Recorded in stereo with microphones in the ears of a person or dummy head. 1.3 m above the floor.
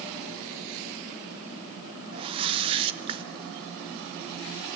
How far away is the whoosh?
About 0.9 m.